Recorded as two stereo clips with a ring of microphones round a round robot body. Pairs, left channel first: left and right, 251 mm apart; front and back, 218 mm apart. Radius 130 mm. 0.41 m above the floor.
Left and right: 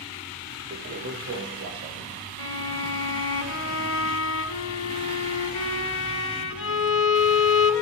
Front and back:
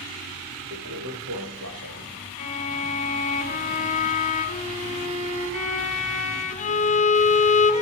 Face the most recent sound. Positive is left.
turn(degrees=60)